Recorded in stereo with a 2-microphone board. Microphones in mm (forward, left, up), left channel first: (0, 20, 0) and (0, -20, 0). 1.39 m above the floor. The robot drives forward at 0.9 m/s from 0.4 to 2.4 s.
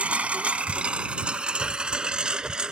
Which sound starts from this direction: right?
A lawn mower, at 0.0 s.